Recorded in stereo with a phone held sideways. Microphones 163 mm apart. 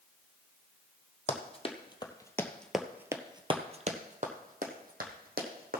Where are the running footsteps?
40° left (ahead or behind), 1.5 m; by 5.8 s 70° right (ahead or behind), 2 m.